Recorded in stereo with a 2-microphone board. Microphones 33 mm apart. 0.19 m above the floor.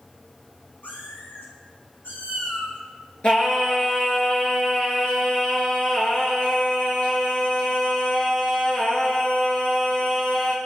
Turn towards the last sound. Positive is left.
turn(degrees=35)  # may be behind; listen again after turning